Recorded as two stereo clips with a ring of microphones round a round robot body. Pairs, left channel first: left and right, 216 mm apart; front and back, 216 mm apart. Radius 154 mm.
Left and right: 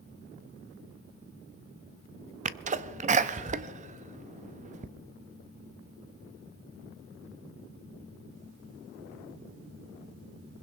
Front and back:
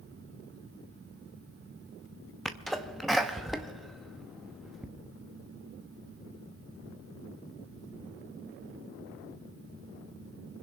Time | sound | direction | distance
2.5 | a sneeze | 90° right | 0.5 m